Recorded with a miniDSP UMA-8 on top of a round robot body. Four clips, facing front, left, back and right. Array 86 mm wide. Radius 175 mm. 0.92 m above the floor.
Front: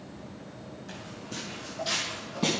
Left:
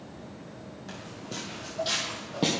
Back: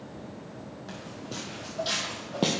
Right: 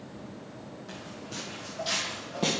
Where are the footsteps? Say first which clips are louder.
Left 3 dB, back 2 dB; 145° left, 2 m; by 2.5 s 165° left, 1.7 m.